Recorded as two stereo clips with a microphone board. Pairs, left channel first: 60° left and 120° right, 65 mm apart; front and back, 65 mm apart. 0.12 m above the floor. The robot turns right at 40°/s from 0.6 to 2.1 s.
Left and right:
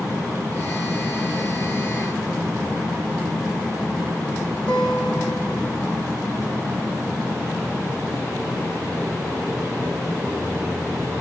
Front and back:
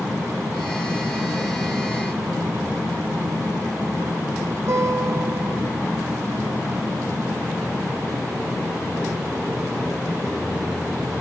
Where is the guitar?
130° left, 2.5 m.